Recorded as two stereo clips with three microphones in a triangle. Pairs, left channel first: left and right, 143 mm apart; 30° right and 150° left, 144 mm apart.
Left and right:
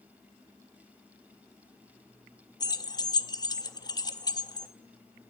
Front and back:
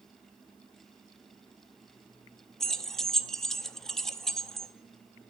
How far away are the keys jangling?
About 0.5 m.